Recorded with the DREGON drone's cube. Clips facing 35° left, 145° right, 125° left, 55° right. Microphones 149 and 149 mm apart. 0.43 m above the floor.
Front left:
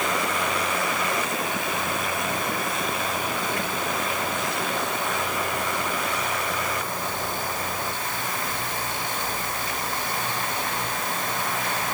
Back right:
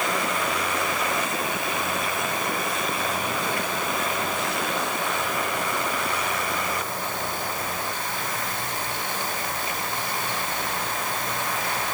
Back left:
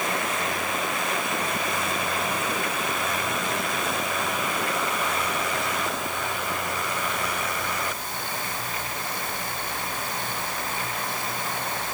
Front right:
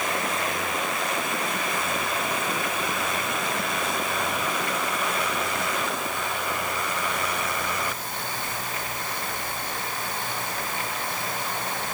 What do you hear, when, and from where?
Only background noise.